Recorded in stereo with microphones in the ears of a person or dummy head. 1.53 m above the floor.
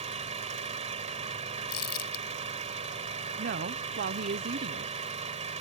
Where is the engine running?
35° right (ahead or behind).